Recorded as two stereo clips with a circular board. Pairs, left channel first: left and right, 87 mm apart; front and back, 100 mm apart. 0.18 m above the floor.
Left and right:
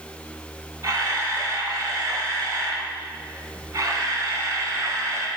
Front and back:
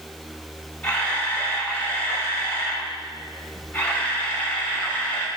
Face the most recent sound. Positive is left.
turn(degrees=-65)